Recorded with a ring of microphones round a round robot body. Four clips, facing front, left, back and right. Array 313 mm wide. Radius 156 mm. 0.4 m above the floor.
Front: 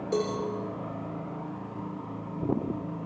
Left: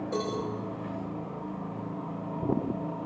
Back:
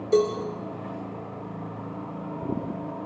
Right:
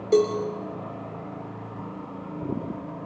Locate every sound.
0.1 s a cowbell: 85° right, 9.5 m